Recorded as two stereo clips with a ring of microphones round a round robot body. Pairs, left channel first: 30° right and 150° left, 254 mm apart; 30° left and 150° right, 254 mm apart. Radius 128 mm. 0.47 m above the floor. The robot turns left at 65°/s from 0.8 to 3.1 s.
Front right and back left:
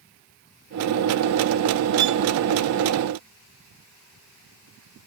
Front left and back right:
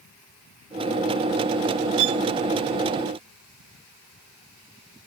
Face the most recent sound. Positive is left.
turn(degrees=130)